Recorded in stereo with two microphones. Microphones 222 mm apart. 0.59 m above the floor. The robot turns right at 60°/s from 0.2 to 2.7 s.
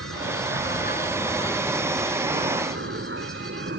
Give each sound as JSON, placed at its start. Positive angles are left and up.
{"t": 0.0, "sound": "an aircraft", "azimuth_deg": 90}